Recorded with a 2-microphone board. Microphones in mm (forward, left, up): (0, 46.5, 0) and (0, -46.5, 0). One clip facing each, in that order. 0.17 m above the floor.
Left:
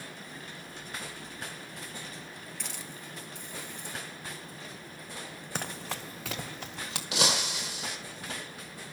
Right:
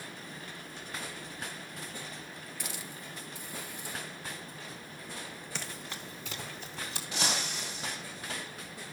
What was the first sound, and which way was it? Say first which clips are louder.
A hiss: right 2 dB; 5° right (ahead or behind).